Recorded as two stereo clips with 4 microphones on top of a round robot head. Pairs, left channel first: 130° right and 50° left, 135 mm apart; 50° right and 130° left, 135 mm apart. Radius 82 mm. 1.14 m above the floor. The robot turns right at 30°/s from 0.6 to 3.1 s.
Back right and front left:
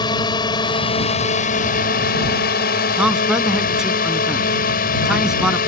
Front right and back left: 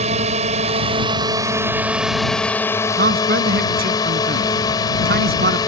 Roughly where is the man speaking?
Behind left.